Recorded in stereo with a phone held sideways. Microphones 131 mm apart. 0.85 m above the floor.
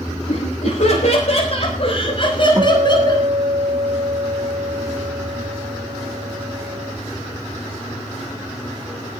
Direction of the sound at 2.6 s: 40° right (ahead or behind).